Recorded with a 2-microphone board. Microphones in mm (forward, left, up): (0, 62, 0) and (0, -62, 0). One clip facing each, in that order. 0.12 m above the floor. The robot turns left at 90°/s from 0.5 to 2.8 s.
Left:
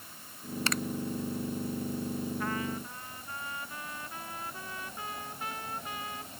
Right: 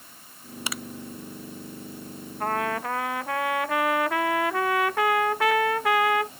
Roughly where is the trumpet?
Ahead right.